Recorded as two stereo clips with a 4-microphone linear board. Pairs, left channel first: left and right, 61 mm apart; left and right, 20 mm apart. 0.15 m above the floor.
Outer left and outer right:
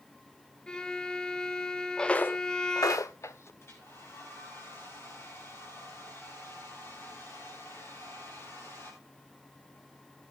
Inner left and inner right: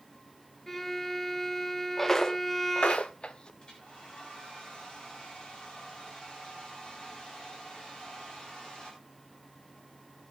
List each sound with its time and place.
0.7 s a violin: 15° left (ahead or behind), 1.0 m
2.0 s footsteps: 10° left (ahead or behind), 0.8 m; by 3.5 s 45° left (ahead or behind), 1.3 m
3.6 s a hair dryer: 45° left (ahead or behind), 9.5 m